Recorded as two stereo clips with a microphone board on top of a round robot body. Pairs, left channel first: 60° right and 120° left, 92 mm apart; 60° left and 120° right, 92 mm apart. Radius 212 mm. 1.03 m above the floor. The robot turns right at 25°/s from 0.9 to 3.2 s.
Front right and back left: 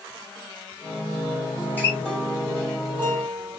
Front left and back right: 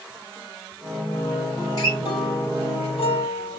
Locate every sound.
1.6 s a guitar: 5° left, 2.5 m; by 3.6 s 45° left, 2.5 m